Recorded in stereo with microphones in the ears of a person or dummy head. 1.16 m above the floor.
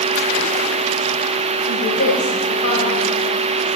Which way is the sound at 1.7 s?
55° left (ahead or behind).